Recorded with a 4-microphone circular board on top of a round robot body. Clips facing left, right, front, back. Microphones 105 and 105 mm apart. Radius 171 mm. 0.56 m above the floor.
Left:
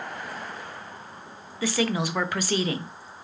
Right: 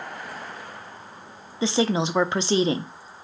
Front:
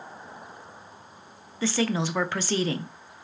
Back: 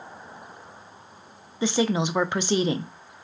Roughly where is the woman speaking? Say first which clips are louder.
Right 3 dB, back 3 dB; behind right.